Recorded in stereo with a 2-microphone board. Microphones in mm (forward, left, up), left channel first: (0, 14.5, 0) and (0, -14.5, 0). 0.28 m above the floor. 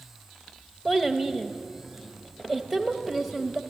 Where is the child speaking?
5° left (ahead or behind), 0.8 m.